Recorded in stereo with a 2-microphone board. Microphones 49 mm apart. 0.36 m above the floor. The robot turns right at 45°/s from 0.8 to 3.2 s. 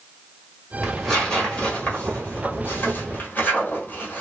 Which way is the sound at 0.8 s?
5° right (ahead or behind).